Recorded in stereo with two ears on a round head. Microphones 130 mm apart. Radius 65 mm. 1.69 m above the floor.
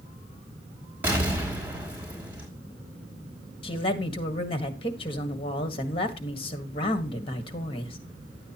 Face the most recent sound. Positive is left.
turn(degrees=35)  # may be behind; listen again after turning